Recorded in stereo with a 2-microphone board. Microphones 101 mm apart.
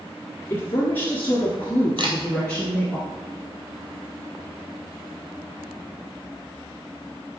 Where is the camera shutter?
55° right (ahead or behind), 1.6 m.